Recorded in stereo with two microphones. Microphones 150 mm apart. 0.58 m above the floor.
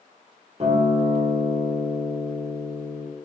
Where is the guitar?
40° right (ahead or behind), 1.4 m.